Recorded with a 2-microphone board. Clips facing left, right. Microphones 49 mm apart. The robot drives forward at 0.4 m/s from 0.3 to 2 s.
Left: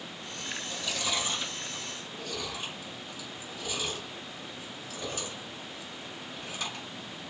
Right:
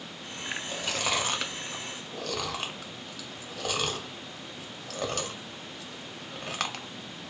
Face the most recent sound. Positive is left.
turn(degrees=-70)  # may be behind; listen again after turning